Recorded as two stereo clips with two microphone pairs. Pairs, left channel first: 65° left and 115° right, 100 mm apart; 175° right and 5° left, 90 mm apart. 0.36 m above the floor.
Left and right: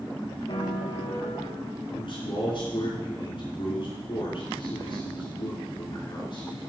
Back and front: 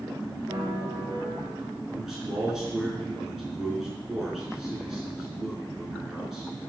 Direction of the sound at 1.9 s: 95° left.